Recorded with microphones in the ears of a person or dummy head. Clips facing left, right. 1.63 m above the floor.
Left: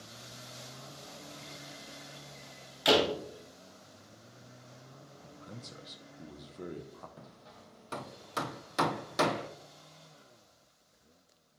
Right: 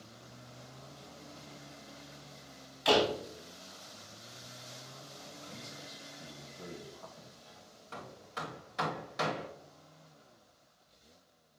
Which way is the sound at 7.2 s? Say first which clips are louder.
Left 2 dB; 55° left (ahead or behind).